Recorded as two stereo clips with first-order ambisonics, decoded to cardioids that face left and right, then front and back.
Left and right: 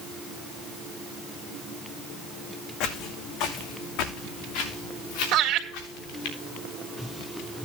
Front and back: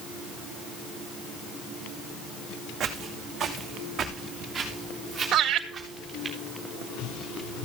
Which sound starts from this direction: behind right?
Laughter, at 5.3 s.